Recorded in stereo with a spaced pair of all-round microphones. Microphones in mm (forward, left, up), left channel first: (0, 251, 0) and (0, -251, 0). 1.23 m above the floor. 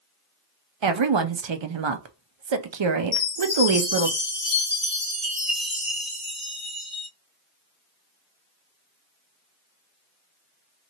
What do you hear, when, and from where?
0.8 s a woman speaking: 65° right (ahead or behind), 0.5 m
3.1 s a chime: 20° right (ahead or behind), 2 m